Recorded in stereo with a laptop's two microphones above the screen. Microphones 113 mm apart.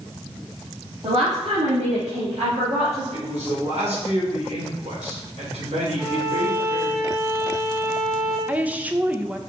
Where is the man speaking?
80° right, 3.5 m.